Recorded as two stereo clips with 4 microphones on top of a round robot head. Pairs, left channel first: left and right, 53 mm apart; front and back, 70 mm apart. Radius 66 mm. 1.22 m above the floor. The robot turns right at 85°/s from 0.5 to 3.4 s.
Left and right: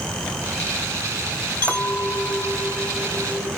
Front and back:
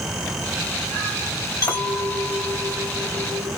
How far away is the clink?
About 2 m.